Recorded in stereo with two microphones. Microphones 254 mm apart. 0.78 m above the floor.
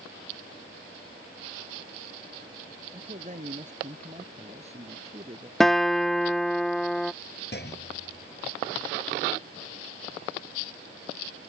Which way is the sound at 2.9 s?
30° right (ahead or behind).